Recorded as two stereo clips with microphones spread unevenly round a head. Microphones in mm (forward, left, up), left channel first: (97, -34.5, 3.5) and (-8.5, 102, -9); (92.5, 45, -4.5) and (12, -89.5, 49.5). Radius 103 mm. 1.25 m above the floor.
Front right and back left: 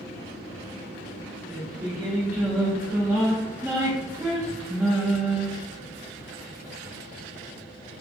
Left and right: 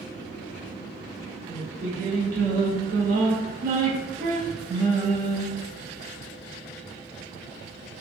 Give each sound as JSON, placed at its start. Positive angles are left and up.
{"t": 1.5, "sound": "singing", "azimuth_deg": -150, "distance_m": 1.0}